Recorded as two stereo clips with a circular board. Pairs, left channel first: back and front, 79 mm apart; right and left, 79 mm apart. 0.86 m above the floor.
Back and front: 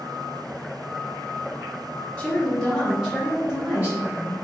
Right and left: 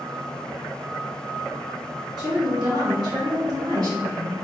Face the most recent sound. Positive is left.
turn(degrees=60)